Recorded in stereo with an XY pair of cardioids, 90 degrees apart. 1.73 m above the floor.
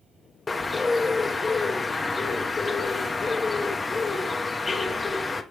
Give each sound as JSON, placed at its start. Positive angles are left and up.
{"t": 0.5, "sound": "a bird", "azimuth_deg": 30, "distance_m": 0.8}